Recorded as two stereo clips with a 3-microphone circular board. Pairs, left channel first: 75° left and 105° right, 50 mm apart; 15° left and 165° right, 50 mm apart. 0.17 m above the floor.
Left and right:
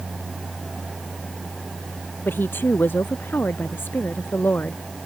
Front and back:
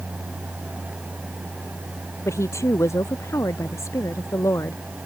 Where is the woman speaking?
30° left; by 4.8 s 25° left.